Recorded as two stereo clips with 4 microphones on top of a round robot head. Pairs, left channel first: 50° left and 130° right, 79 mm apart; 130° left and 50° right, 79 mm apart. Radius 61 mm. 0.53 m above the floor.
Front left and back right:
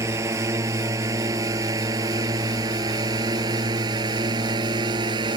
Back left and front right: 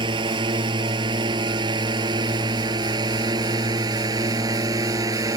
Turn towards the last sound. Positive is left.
turn(degrees=-95)